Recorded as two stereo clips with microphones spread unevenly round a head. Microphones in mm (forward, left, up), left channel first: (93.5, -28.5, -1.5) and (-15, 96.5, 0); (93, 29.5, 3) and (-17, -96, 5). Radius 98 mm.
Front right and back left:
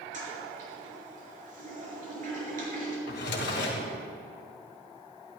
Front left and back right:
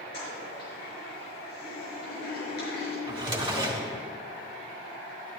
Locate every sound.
0.1 s a toilet flushing: 95° left, 5 m
3.1 s a drawer: 70° right, 3 m